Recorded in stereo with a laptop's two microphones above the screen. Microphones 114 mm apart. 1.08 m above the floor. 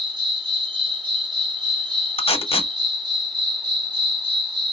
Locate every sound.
0.0 s an insect: 50° right (ahead or behind), 1.0 m
2.2 s tape being pulled: 65° left (ahead or behind), 1.2 m